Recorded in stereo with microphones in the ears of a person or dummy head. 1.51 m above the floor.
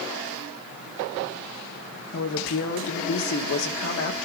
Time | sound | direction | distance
2.1 | a woman speaking | 70° left (ahead or behind) | 1.9 m